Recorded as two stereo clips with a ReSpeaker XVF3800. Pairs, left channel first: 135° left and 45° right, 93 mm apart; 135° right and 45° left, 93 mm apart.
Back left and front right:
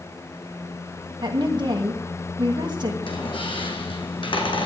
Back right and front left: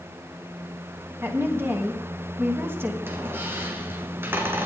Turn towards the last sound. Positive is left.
turn(degrees=110)